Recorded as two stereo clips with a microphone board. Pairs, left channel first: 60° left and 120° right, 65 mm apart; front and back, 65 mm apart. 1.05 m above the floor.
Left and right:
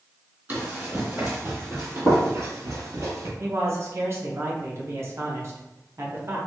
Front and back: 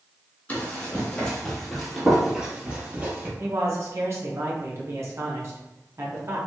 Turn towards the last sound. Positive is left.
turn(degrees=-155)